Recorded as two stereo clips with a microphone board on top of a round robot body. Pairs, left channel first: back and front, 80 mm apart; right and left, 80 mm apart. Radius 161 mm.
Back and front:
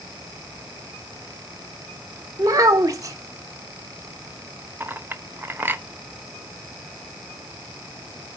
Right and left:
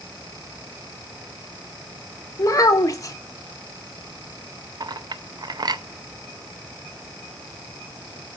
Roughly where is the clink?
Ahead left.